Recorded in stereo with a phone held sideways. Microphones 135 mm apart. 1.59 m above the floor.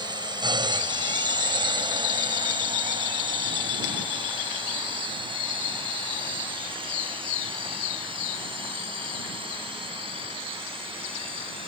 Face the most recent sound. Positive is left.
turn(degrees=-40)  # may be behind; listen again after turning